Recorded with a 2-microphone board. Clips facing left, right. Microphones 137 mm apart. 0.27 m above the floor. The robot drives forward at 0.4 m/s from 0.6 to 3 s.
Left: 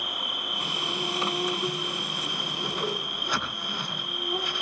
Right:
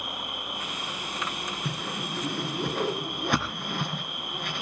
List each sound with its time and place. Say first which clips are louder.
0.0 s an insect: even; 75° left (ahead or behind), 4.5 m; by 4.6 s 65° left (ahead or behind), 5 m
1.6 s a whoosh: left 1 dB; 65° right (ahead or behind), 2.5 m; by 4.6 s 60° right (ahead or behind), 3 m